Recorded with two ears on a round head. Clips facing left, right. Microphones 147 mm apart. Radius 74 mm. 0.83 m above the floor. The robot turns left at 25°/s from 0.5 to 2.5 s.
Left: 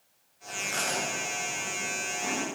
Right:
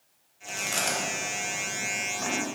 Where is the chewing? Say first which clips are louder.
Right 2 dB; 40° right (ahead or behind), 2.5 m; by 2.4 s 85° right, 2.5 m.